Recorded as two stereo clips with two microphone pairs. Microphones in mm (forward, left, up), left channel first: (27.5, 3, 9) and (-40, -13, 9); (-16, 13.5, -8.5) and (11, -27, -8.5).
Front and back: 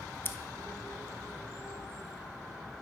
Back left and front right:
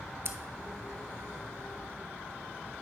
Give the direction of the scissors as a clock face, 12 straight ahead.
1 o'clock.